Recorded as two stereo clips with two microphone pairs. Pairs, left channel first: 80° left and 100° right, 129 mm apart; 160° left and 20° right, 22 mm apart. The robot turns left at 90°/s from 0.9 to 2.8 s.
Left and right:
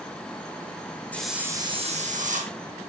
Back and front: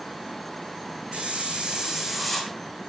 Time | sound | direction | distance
1.1 | a hiss | straight ahead | 3 m